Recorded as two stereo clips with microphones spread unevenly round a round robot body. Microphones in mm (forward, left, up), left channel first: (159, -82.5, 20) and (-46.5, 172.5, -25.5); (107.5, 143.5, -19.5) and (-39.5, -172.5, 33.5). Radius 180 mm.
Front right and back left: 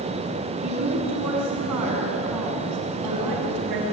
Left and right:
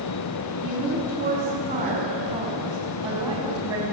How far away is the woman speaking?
About 7.5 m.